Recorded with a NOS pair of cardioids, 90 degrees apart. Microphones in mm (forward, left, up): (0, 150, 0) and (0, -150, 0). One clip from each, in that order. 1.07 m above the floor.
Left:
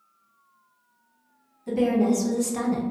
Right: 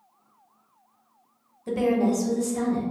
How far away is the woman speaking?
About 0.9 m.